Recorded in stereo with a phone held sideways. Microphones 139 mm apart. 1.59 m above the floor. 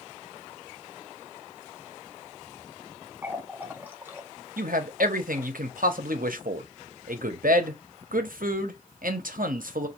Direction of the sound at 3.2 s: 15° right (ahead or behind).